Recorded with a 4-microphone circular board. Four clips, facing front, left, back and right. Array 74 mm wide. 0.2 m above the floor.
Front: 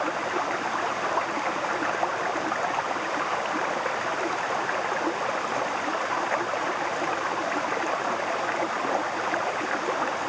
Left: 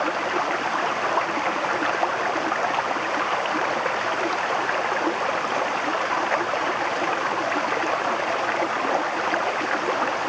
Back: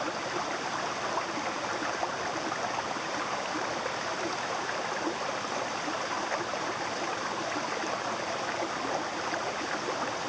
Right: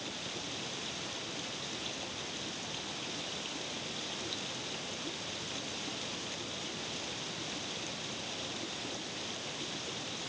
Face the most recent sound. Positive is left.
turn(degrees=70)